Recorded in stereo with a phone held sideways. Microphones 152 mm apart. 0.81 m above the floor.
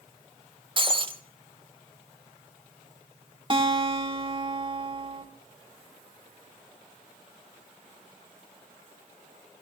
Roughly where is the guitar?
Right.